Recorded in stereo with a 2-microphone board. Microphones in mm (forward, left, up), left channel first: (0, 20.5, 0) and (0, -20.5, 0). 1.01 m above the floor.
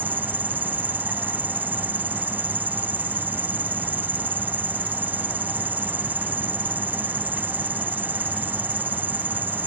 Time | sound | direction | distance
0.0 | an insect | 50° right (ahead or behind) | ?